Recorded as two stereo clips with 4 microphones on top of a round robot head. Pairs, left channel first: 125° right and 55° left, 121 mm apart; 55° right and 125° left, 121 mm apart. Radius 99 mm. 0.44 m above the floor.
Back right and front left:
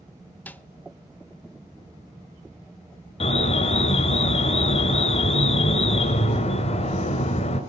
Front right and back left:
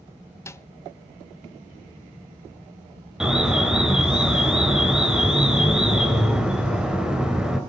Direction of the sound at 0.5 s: 75° right.